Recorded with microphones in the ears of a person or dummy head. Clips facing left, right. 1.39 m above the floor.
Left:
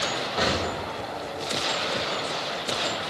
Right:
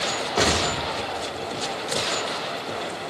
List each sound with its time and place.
0.4 s an explosion: 60° right (ahead or behind), 5 m